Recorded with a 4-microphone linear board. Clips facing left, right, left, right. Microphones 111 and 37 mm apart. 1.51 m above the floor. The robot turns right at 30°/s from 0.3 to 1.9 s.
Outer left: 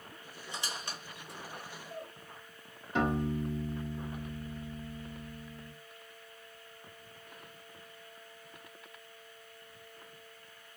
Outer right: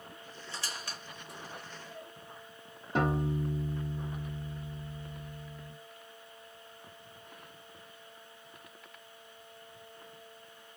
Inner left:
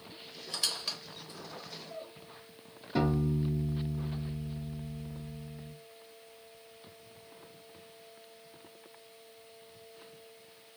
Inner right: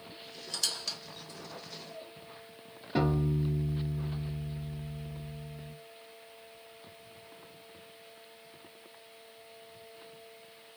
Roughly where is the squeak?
Centre.